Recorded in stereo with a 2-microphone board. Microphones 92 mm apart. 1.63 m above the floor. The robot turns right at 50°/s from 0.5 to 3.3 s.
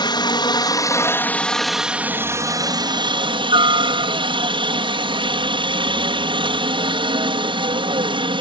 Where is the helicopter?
120° left; by 8.4 s 100° right.